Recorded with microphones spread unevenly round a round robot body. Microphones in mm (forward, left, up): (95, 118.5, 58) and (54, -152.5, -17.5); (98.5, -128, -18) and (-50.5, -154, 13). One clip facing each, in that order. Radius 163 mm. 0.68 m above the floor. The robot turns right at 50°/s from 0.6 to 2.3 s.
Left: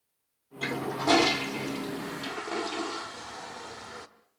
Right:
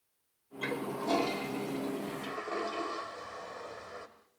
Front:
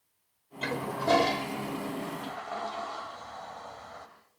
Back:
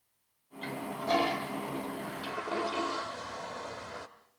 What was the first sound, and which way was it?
A toilet flushing, 50° left.